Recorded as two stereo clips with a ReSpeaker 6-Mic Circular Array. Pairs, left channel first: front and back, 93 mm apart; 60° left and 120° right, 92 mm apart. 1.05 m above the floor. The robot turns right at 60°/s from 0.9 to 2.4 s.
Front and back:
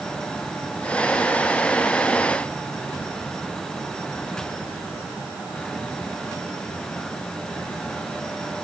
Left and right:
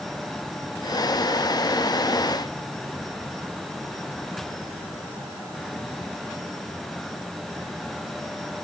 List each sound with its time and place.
Only background noise.